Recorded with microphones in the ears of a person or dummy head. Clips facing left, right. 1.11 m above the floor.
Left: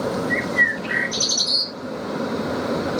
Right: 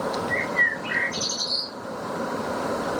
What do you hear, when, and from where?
0.3 s a bird: 70° left (ahead or behind), 0.5 m